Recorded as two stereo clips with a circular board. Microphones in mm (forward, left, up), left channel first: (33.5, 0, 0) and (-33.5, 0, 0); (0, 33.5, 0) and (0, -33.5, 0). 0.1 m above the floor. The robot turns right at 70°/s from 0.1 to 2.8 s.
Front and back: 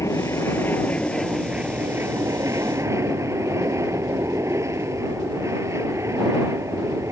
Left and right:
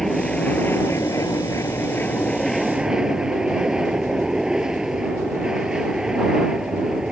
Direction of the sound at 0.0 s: 5° left.